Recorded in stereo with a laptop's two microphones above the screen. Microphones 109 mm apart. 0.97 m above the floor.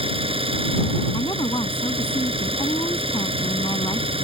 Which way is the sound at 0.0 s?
65° right (ahead or behind).